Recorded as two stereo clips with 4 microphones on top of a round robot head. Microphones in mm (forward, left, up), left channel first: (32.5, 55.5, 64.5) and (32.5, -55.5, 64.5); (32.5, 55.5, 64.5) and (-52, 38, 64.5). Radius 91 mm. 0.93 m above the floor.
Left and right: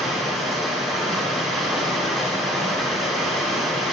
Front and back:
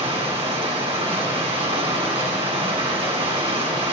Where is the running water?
Straight behind, 2 m.